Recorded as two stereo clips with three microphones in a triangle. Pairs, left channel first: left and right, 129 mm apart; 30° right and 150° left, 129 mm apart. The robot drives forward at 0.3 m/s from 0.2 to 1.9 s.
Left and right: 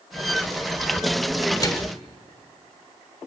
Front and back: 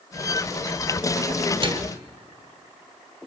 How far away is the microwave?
About 0.8 m.